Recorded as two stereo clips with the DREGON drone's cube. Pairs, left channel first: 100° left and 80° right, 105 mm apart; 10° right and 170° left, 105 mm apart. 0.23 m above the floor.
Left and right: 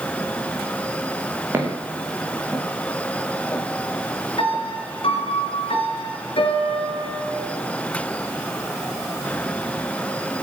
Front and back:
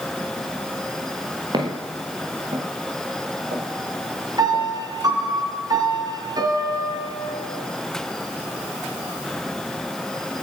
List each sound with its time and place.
1.5 s footsteps: 145° right, 5 m; by 4.7 s 160° left, 5 m
4.4 s a piano: 120° left, 3 m